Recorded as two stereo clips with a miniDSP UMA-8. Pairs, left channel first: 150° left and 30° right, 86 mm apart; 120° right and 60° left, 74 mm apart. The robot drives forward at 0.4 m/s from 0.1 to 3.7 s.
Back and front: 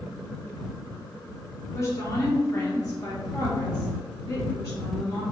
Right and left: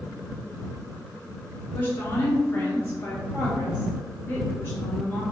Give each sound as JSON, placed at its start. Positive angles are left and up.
{"t": 1.7, "sound": "a woman speaking", "azimuth_deg": -170, "distance_m": 1.4}